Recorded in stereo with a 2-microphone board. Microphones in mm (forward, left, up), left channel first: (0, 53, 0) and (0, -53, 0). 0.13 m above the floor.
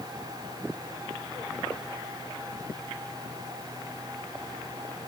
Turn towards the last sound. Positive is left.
No sound to turn to.